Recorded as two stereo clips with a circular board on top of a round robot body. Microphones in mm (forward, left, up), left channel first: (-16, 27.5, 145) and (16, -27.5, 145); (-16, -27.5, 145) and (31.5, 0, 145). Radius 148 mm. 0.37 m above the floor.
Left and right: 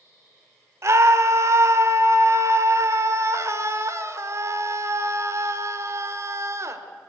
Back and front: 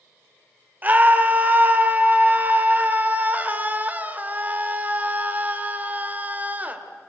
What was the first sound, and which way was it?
A scream, 25° right.